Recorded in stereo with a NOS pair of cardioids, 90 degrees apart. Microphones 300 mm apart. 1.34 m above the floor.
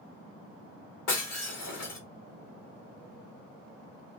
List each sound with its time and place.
1.1 s breaking glass: 65° left, 2 m